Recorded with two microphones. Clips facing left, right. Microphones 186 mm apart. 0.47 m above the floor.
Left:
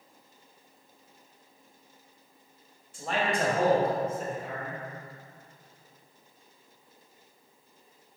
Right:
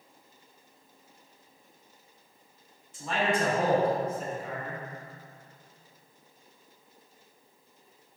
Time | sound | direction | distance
2.9 | a man speaking | 65° left (ahead or behind) | 2 m